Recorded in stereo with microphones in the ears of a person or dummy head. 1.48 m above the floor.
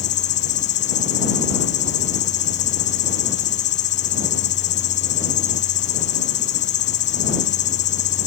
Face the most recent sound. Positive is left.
turn(degrees=35)  # may be behind; listen again after turning